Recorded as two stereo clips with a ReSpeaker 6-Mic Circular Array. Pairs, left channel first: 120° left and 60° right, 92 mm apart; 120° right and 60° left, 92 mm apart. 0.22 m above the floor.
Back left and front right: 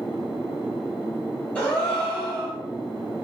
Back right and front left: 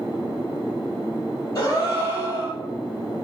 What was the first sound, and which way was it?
A gasp, 170° right.